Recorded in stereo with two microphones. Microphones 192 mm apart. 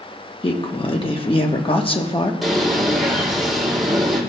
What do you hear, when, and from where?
0.4 s a woman speaking: 25° left (ahead or behind), 1.0 m
2.4 s a bird: centre (ahead or behind), 2.5 m